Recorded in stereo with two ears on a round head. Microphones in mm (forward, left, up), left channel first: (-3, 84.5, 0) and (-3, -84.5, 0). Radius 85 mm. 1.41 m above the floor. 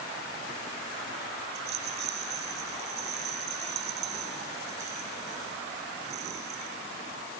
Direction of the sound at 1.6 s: 60° right (ahead or behind).